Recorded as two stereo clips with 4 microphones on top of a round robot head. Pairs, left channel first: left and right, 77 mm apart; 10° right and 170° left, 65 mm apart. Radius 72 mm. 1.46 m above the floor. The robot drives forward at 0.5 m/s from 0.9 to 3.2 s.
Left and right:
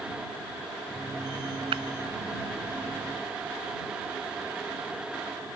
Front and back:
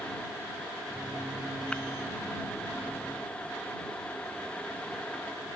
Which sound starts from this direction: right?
Breaking glass, at 1.7 s.